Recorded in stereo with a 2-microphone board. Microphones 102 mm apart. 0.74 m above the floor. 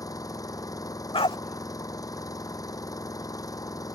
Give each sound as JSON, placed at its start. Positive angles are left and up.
{"t": 0.0, "sound": "an engine running", "side_deg": 35}
{"t": 1.1, "sound": "a dog barking", "side_deg": 65}